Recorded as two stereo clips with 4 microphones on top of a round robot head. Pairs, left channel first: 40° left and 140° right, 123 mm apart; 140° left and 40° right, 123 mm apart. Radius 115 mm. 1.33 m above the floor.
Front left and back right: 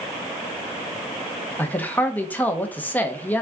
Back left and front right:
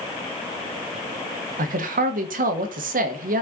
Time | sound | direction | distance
1.6 | a man speaking | 40° right | 1.3 m